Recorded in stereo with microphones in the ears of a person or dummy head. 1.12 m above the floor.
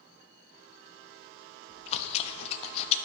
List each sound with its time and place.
1.7 s chewing: 40° left (ahead or behind), 0.7 m